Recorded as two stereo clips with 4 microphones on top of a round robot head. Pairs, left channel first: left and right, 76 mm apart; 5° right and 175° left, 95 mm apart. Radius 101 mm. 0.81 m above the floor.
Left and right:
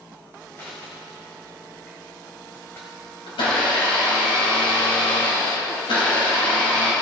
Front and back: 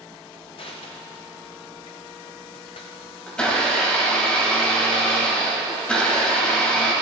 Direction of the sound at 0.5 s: 15° left.